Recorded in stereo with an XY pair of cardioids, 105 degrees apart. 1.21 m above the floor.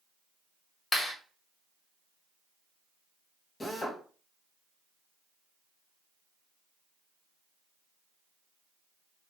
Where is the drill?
30° left, 1.3 m.